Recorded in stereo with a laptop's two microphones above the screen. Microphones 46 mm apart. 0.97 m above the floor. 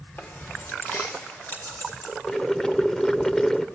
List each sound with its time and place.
0.2 s keys jangling: 40° left (ahead or behind), 2.5 m; by 2.1 s 45° left (ahead or behind), 4.5 m
2.3 s boiling: 10° left (ahead or behind), 0.7 m